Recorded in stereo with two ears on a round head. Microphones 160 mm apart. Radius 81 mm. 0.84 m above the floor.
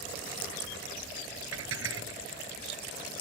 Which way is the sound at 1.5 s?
90° right.